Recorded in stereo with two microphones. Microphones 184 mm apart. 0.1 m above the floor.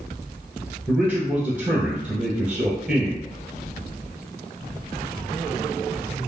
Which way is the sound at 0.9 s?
5° right (ahead or behind).